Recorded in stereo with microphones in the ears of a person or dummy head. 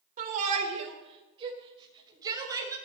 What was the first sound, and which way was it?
A shout, 45° right (ahead or behind).